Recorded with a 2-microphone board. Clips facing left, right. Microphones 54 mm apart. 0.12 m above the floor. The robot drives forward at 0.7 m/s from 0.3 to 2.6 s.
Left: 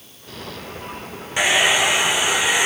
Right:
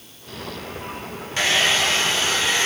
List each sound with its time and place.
1.4 s a hair dryer: 15° left (ahead or behind)